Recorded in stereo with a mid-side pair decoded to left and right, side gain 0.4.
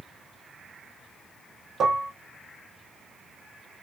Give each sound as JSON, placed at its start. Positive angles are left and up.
{"t": 1.8, "sound": "dishes clattering", "azimuth_deg": -55, "distance_m": 0.6}